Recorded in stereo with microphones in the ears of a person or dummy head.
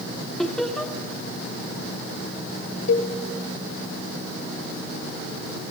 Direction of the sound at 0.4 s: 5° left (ahead or behind).